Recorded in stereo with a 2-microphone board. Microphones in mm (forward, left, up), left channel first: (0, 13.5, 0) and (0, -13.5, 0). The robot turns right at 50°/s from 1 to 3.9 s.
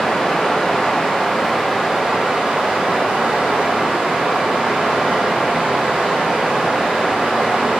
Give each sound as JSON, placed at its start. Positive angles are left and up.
{"t": 0.0, "sound": "running water", "azimuth_deg": 155, "distance_m": 0.7}